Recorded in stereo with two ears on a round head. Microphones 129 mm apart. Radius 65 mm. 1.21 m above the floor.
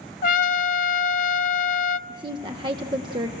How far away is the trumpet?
About 0.8 m.